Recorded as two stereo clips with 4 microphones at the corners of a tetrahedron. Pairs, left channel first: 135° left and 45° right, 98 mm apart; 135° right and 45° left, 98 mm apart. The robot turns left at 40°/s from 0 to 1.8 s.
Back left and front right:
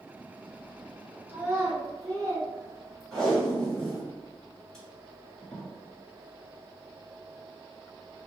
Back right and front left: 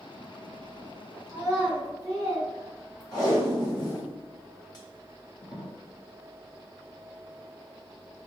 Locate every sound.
1.3 s a child speaking: 10° left, 1.6 m; by 3.4 s 10° right, 1.6 m
3.1 s tape being pulled: 140° right, 1.5 m